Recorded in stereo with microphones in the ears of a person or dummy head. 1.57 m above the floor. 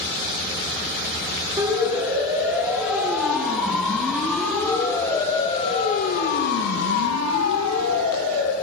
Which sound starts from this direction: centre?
A siren, at 1.6 s.